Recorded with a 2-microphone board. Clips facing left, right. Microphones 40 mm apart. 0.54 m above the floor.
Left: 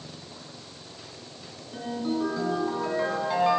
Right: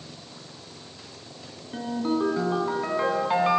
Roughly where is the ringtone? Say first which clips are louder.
Right 3 dB; right.